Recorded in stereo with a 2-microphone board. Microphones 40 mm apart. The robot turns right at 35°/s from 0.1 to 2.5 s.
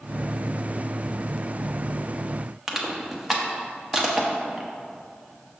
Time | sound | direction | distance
2.7 | crushing | 10° right (ahead or behind) | 0.8 m